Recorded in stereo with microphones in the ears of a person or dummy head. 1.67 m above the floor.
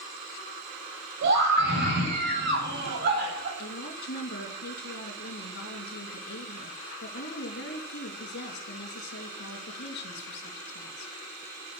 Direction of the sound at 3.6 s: 60° left (ahead or behind).